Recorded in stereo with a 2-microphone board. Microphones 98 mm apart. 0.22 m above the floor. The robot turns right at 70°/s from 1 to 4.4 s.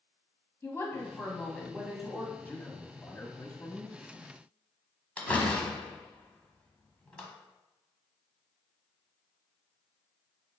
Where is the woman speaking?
130° left, 1.2 m; by 2.3 s 140° right, 1.2 m.